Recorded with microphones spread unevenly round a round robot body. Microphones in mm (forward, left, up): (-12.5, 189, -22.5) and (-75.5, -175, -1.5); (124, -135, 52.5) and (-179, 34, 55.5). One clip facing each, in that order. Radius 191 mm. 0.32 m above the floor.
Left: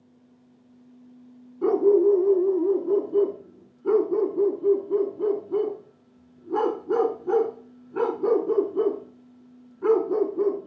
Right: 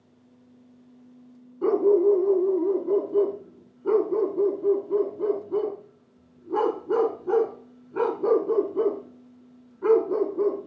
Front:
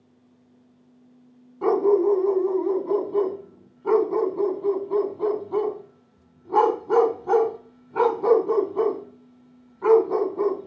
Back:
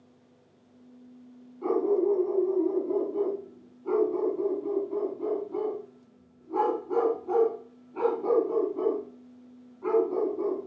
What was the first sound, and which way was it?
A dog barking, 5° right.